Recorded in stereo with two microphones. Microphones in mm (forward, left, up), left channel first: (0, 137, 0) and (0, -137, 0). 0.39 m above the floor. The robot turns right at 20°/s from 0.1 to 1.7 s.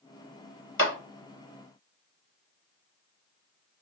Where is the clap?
45° left (ahead or behind), 1.4 m.